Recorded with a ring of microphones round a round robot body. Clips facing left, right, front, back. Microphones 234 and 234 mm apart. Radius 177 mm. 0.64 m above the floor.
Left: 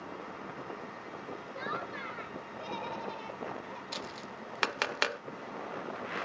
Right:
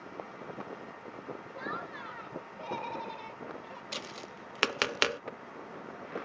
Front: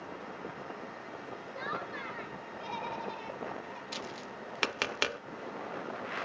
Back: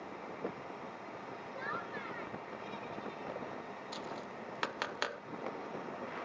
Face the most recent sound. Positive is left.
turn(degrees=-45)